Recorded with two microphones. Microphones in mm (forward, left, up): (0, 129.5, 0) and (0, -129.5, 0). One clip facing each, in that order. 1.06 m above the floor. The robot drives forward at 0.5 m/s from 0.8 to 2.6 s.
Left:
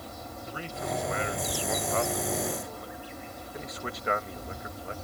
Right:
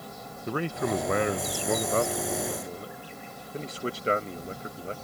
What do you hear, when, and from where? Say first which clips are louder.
0.5 s a man speaking: right 8 dB; 65° right (ahead or behind); by 4.9 s 30° right (ahead or behind)